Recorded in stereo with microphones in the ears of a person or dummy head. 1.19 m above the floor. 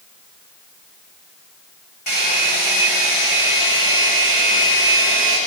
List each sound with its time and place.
2.1 s a hair dryer: 45° left (ahead or behind), 7.5 m